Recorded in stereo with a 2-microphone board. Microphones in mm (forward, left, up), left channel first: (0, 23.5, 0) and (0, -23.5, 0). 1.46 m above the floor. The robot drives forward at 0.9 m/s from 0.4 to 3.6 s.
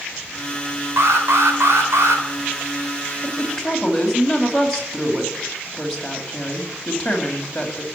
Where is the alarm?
70° right (ahead or behind), 3.5 m; by 2.2 s 80° right, 3.5 m.